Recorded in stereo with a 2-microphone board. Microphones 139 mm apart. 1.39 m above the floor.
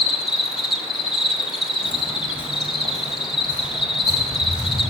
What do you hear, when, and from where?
0.0 s an insect: 5° right (ahead or behind), 0.8 m
1.8 s footsteps: 5° right (ahead or behind), 1.5 m; by 4.9 s 40° right (ahead or behind), 3.5 m